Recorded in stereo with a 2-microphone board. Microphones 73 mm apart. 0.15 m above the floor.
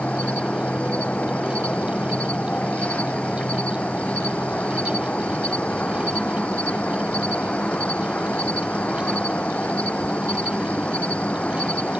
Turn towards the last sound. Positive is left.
turn(degrees=15)  # may be behind; listen again after turning